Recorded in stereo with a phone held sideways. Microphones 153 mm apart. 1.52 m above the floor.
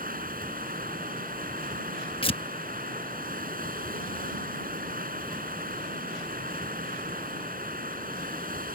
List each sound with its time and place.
0.0 s running water: 70° right (ahead or behind)
2.2 s tearing paper: 35° left (ahead or behind)